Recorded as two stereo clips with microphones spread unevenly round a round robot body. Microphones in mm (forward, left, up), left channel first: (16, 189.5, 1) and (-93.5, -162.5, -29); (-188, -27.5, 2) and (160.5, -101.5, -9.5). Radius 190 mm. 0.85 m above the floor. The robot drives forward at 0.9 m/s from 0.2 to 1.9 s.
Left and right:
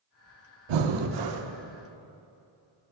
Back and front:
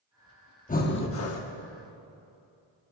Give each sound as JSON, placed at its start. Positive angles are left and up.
{"t": 0.7, "sound": "breathing", "azimuth_deg": -120, "distance_m": 1.1}